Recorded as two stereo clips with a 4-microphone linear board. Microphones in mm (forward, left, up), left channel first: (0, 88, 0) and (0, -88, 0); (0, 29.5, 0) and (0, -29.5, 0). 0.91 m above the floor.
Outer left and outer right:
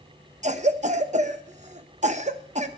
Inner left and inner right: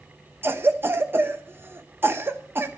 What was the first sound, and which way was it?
A cough, 40° right (ahead or behind).